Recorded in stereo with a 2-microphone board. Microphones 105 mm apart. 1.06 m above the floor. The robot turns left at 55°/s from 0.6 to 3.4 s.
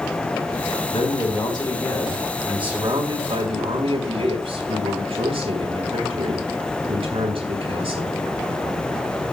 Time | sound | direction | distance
0.9 | a man speaking | 80° left | 3.5 m